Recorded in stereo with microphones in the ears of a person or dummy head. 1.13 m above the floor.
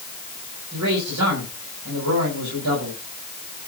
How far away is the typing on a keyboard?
I don't hear typing on a keyboard.